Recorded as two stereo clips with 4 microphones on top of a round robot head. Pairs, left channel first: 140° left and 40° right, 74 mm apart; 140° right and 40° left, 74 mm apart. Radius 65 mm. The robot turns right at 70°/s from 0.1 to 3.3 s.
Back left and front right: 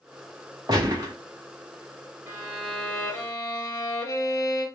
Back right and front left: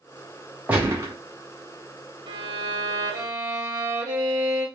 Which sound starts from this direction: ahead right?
A gunshot, at 0.7 s.